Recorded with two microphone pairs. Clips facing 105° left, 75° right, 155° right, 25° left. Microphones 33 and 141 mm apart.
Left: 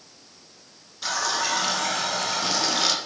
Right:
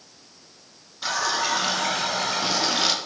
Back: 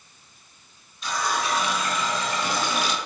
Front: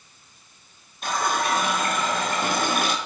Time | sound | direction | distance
1.0 | a running tap | straight ahead | 1.0 m